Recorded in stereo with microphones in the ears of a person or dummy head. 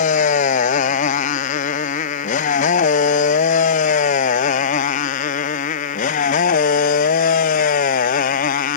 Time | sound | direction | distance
0.0 | a motorcycle | 45° left (ahead or behind) | ?